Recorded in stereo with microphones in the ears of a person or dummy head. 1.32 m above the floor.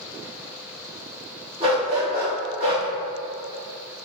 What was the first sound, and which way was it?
A dog barking, 35° right (ahead or behind).